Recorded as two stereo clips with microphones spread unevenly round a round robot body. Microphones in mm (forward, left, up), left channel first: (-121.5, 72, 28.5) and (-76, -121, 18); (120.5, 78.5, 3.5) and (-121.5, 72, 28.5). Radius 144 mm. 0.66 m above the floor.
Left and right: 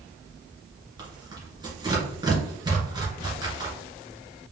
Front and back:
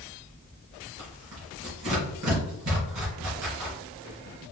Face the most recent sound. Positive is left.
turn(degrees=-145)